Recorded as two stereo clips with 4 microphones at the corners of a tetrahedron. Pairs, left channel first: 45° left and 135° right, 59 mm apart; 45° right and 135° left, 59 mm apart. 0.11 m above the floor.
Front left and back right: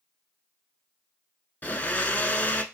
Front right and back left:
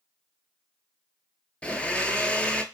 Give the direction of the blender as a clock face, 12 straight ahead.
12 o'clock.